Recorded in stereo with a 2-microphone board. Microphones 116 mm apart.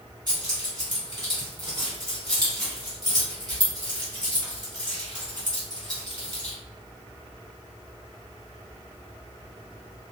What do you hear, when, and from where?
0.3 s keys jangling: 35° right (ahead or behind), 1.3 m